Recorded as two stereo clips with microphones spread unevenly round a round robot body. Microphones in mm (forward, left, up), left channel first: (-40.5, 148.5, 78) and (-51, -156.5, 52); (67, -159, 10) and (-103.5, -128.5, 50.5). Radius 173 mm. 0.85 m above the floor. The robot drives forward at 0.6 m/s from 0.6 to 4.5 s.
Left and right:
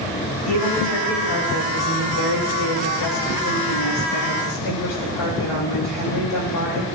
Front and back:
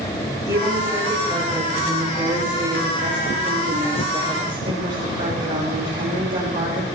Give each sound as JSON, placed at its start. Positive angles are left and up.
{"t": 0.5, "sound": "a woman speaking", "azimuth_deg": 90, "distance_m": 5.5}